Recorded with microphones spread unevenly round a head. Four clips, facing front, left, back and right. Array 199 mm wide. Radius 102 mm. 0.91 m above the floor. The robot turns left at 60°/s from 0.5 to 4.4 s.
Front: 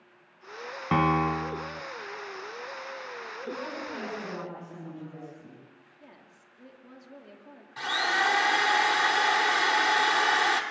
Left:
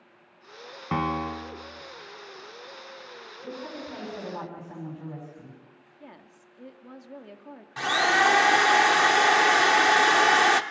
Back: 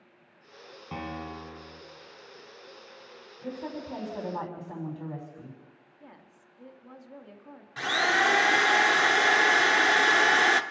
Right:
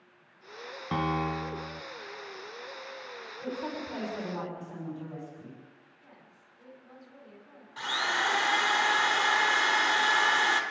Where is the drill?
115° left, 0.8 m.